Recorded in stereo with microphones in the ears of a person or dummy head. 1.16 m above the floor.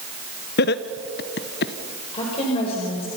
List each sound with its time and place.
0.6 s laughter: 55° left (ahead or behind), 0.9 m
2.1 s a woman speaking: 30° left (ahead or behind), 5 m